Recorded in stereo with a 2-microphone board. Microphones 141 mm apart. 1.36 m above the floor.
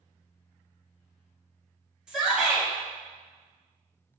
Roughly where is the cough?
No cough in this recording.